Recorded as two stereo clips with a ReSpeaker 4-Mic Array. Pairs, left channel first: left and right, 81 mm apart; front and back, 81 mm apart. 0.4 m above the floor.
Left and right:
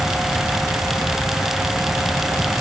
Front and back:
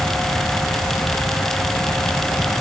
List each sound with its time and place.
Only background noise.